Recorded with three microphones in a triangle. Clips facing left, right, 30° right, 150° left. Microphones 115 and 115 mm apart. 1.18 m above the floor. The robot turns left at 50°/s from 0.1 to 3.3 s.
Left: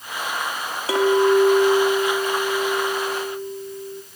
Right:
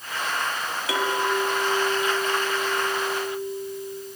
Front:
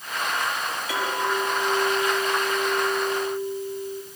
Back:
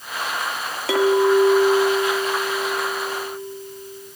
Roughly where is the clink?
Behind left.